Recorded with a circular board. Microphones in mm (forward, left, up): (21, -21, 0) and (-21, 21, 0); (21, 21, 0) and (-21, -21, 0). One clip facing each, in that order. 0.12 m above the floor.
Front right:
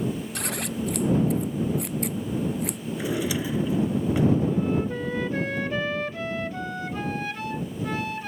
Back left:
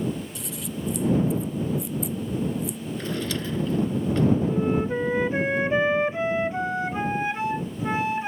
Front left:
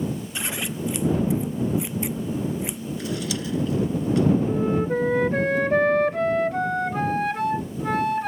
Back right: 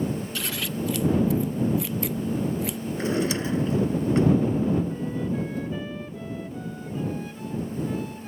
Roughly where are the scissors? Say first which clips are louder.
Front right 4 dB, even; ahead right.